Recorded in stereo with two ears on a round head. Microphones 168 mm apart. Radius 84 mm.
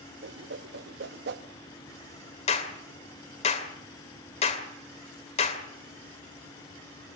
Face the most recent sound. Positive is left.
turn(degrees=35)  # may be behind; listen again after turning